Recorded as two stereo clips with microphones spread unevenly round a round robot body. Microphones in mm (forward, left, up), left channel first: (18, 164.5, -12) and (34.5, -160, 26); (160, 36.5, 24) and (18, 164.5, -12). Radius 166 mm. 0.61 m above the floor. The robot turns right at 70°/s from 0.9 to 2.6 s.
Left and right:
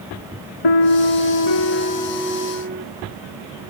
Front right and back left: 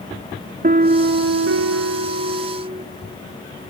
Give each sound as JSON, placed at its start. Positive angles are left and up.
{"t": 0.6, "sound": "a piano", "azimuth_deg": 90}